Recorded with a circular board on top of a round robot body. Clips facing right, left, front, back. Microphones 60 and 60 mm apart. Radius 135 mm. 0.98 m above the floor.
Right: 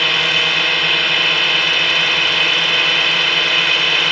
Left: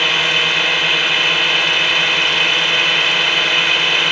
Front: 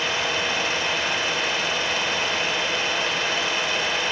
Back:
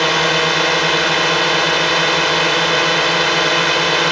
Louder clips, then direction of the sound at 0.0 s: Even, back 10 dB; straight behind.